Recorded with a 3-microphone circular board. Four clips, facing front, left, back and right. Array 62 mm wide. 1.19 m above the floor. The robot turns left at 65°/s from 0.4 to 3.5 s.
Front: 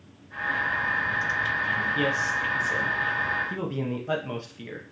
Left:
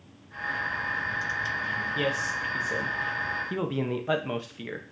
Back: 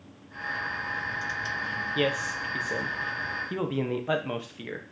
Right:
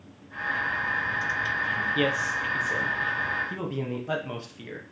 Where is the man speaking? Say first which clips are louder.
Right 1 dB, front 3 dB; 130° right, 0.7 m; by 4.8 s 130° left, 0.7 m.